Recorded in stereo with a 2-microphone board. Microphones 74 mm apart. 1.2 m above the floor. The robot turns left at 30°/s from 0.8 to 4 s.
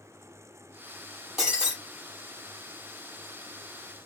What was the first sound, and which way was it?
Breaking glass, 5° right (ahead or behind).